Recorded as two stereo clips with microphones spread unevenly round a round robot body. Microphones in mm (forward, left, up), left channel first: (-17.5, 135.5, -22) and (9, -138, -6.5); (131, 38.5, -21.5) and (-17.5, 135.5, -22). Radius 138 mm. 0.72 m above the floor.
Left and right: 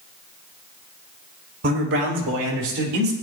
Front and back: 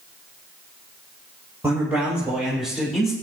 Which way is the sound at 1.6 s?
135° right.